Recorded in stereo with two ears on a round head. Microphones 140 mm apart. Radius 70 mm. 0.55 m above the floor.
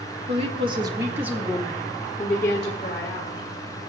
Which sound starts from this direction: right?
A woman speaking, at 0.3 s.